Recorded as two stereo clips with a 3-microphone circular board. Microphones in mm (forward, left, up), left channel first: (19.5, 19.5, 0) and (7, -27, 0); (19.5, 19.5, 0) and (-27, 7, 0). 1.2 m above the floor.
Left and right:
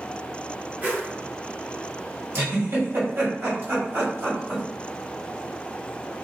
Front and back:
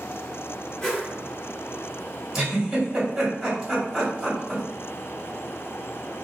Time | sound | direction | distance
0.8 | a whoosh | 65° right | 1.1 m
2.3 | a giggle | 90° right | 1.6 m